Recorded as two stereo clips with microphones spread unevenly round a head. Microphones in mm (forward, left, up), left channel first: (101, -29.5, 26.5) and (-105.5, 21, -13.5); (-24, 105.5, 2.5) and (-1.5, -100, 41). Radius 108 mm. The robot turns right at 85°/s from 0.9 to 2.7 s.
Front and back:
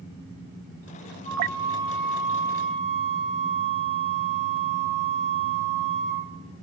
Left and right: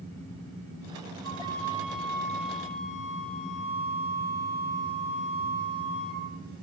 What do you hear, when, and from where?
1.2 s a flute: 60° right, 3.5 m; by 6.2 s 65° left, 3.5 m